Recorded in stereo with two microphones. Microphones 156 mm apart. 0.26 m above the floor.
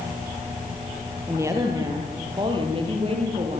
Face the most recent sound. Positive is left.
turn(degrees=-40)  # may be behind; listen again after turning